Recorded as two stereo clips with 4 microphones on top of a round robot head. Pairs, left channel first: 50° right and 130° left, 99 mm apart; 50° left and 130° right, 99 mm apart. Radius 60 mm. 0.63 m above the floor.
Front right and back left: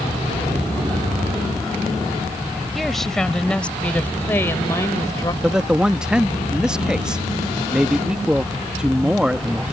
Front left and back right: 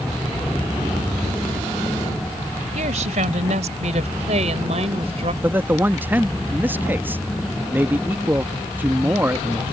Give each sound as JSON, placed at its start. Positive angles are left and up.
{"t": 2.8, "sound": "a woman speaking", "azimuth_deg": -140}
{"t": 5.4, "sound": "a man speaking", "azimuth_deg": -160}